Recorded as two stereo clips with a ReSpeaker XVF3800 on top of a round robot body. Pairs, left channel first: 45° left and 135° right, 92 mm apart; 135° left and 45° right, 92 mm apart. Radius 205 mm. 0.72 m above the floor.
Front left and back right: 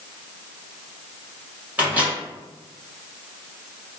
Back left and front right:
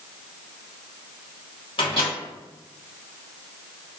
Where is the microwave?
150° left, 2.0 m.